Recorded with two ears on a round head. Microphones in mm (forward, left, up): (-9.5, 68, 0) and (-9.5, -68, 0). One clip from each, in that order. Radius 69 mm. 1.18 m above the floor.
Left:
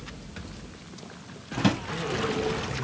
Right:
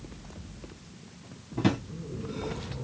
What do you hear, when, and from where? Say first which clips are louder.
1.6 s a drawer: left 2 dB; 30° left (ahead or behind), 0.9 m